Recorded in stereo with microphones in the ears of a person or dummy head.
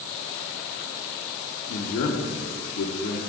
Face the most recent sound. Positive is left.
turn(degrees=65)  # may be behind; listen again after turning